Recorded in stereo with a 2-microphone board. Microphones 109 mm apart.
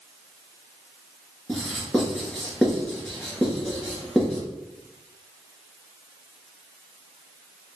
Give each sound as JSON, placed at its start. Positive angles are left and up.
{"t": 1.5, "sound": "writing", "side_deg": 0, "distance_m": 2.0}